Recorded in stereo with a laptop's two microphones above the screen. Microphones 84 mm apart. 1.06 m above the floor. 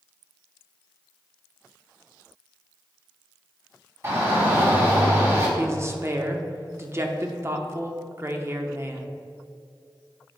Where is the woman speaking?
30° right (ahead or behind), 0.8 m.